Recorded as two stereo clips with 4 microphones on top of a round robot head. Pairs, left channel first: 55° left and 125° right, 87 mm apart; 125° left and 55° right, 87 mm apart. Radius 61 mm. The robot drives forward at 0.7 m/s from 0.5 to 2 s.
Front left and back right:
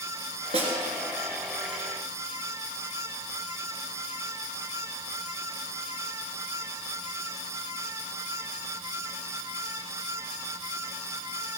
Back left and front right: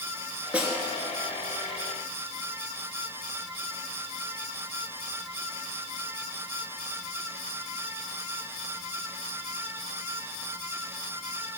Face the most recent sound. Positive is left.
turn(degrees=-140)